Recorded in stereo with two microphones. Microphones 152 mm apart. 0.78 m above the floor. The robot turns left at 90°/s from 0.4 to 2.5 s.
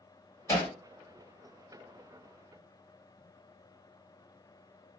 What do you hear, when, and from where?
0.5 s hammering: 20° left (ahead or behind), 1.7 m; by 0.7 s 40° left (ahead or behind), 1.7 m